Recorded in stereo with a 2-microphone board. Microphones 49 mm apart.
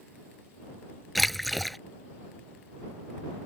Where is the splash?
Centre (ahead or behind).